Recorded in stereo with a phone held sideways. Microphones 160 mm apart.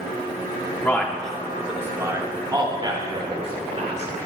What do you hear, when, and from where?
0.8 s a man speaking: 15° left (ahead or behind), 2 m; by 4.1 s 45° right (ahead or behind), 4 m